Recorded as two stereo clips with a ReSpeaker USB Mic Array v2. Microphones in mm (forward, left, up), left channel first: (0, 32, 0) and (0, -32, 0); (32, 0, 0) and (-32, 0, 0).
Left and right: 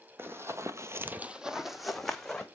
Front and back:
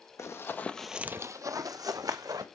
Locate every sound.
0.2 s running footsteps: 40° right, 1.0 m; by 2.5 s 175° left, 1.7 m